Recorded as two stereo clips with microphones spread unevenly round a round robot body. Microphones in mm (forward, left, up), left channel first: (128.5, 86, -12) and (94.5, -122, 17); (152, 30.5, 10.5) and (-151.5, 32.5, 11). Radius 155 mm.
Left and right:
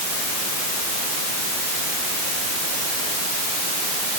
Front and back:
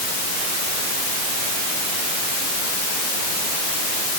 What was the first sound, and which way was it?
Only background noise.